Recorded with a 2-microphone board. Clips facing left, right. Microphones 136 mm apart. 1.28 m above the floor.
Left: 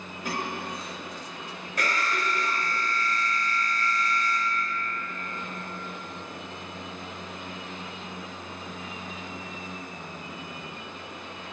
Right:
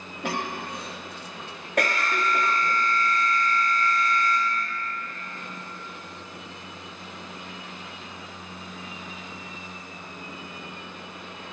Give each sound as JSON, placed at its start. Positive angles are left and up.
{"t": 0.2, "sound": "a cough", "side_deg": -75, "distance_m": 1.2}
{"t": 1.8, "sound": "an alarm", "side_deg": -60, "distance_m": 1.2}